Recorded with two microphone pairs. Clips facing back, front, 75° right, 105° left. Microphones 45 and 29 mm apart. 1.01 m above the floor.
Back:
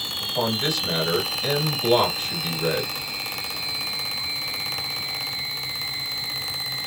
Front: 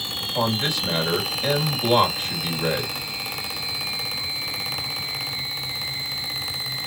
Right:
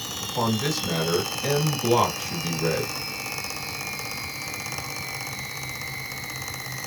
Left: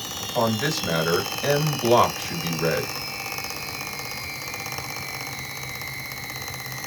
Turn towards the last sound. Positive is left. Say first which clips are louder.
# front 1 dB, left 2 dB
turn(degrees=70)